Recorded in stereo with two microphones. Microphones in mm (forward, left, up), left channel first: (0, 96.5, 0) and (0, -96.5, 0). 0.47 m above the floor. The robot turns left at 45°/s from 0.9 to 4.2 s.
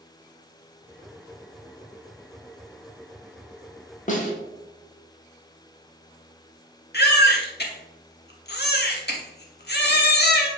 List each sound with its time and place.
4.1 s a snare drum: 40° left (ahead or behind), 0.9 m; by 4.3 s 45° left (ahead or behind), 0.9 m
6.9 s a baby crying: 60° left (ahead or behind), 0.8 m